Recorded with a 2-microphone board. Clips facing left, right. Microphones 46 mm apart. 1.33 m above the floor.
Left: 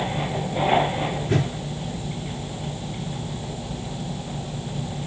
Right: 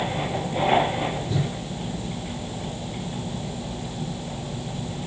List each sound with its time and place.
1.3 s a whoosh: 60° left (ahead or behind), 3 m